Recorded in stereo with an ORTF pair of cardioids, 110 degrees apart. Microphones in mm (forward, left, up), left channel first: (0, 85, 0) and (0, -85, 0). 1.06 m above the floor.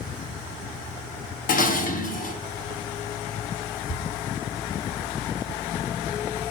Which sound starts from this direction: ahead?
Ticking, at 3.9 s.